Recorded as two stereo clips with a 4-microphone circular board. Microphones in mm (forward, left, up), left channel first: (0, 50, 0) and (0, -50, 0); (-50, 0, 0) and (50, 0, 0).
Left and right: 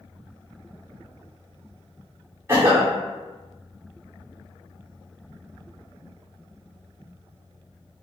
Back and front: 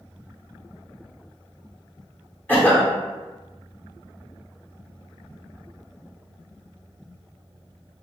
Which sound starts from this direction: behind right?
A cough, at 2.5 s.